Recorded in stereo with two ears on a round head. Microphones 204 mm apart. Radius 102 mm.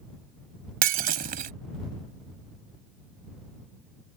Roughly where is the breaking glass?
Right.